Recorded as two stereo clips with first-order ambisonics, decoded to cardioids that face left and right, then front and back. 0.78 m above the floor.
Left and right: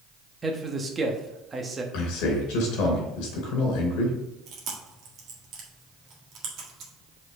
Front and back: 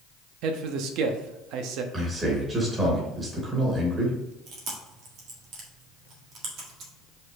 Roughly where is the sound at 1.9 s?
Left.